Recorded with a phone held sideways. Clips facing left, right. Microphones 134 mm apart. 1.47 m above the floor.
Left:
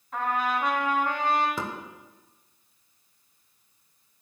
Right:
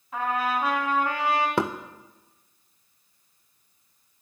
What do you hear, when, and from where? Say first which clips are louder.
0.1 s a trumpet: right 1 dB; 5° right (ahead or behind), 2.5 m
1.6 s knocking: right 8 dB; 65° right (ahead or behind), 0.7 m